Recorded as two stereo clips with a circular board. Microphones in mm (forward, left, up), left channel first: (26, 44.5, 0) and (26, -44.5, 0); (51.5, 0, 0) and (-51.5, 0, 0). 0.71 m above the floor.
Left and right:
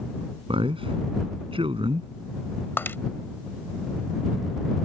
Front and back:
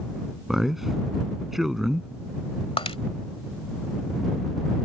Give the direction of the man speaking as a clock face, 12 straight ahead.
3 o'clock.